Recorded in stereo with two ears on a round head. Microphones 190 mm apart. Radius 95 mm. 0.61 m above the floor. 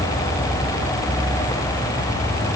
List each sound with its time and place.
Only background noise.